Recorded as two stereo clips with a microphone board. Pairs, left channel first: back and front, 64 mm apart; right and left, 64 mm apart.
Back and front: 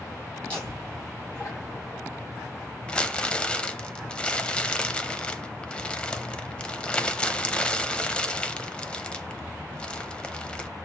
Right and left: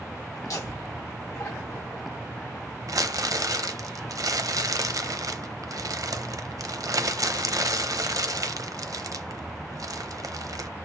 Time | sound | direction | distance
0.4 | laughter | 110° right | 2.5 m
2.9 | crumpling | 105° left | 0.8 m